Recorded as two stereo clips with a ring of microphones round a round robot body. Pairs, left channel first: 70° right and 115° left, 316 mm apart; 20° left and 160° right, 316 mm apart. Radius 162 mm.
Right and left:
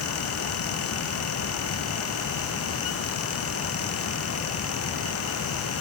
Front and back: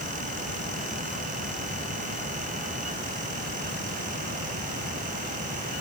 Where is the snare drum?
I don't hear a snare drum.